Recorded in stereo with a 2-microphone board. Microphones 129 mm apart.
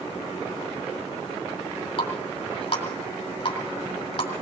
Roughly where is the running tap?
Left.